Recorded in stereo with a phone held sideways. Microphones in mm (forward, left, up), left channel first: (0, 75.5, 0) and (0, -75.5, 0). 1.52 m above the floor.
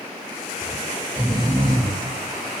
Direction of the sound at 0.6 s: 60° right (ahead or behind).